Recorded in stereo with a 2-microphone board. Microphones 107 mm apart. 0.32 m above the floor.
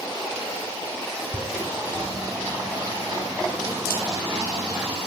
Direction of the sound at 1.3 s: 35° right (ahead or behind).